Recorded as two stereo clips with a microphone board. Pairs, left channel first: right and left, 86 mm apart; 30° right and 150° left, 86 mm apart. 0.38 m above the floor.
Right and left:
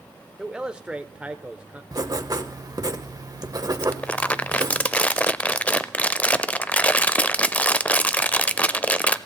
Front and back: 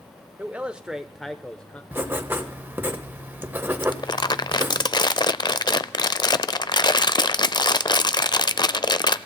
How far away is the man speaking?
About 0.9 m.